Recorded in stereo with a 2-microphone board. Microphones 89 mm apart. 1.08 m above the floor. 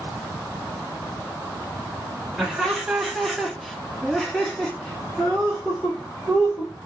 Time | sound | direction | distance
2.4 | laughter | 5° right (ahead or behind) | 1.0 m